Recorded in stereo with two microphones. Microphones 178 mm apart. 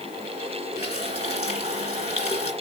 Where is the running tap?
35° left (ahead or behind), 2.5 m.